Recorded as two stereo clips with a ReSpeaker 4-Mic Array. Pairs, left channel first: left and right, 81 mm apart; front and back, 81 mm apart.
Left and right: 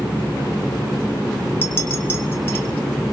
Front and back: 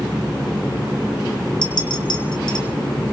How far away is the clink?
About 2 m.